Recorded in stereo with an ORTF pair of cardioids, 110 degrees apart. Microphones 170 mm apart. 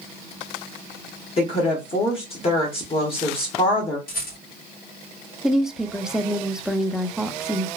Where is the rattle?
60° left, 1.8 m.